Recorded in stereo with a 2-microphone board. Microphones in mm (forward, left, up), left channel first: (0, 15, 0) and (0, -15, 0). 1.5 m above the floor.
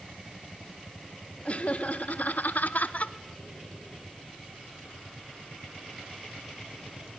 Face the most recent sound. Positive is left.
turn(degrees=45)  # may be behind; listen again after turning